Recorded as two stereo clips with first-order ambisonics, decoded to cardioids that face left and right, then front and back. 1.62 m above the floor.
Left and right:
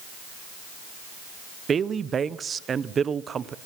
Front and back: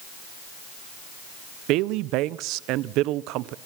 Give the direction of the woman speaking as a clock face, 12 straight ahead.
5 o'clock.